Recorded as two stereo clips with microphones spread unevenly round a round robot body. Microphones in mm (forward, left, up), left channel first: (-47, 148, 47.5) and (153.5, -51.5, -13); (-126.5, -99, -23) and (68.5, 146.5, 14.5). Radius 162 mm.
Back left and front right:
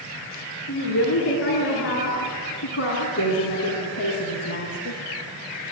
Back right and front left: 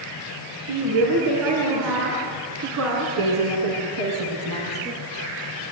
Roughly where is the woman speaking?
Left.